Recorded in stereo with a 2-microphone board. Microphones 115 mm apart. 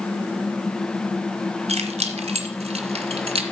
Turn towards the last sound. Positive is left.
turn(degrees=-55)  # may be behind; listen again after turning